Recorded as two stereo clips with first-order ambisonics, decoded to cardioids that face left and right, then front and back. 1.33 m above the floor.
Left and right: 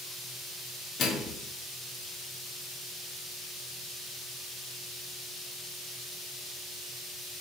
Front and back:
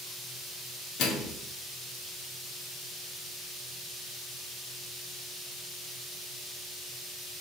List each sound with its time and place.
1.0 s a microwave: 35° left, 1.3 m